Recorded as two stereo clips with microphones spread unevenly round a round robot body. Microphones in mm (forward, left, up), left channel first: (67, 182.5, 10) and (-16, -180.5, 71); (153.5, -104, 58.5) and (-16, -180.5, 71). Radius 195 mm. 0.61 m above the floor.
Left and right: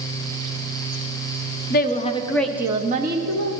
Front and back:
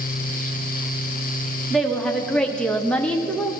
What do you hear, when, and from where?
1.7 s a woman speaking: 105° left, 1.1 m; by 3.5 s 55° right, 1.1 m